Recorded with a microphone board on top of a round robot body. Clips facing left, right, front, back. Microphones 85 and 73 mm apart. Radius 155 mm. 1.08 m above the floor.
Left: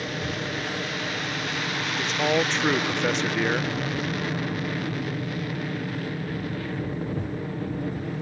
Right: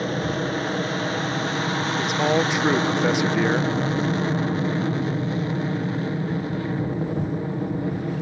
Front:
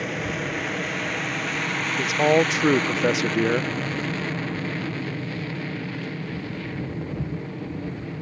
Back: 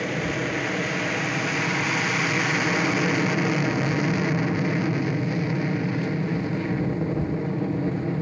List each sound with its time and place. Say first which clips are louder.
0.0 s an aircraft: right 6 dB, back 2 dB; 90° right; by 8.2 s 140° right
2.0 s a man speaking: right 2 dB, front 5 dB; 10° right